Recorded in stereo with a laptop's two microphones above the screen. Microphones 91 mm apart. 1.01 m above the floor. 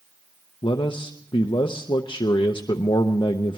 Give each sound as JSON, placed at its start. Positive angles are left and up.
{"t": 0.6, "sound": "a man speaking", "side_deg": 70, "distance_m": 0.7}